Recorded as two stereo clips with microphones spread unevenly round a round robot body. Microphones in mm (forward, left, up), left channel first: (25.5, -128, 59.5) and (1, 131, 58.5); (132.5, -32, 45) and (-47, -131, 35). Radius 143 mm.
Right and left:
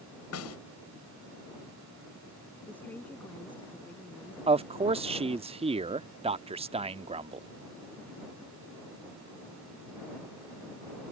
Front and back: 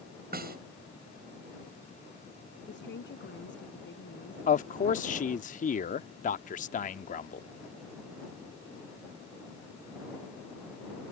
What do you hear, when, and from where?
0.3 s a snare drum: 115° right
2.7 s a woman speaking: straight ahead
4.5 s a man speaking: 45° left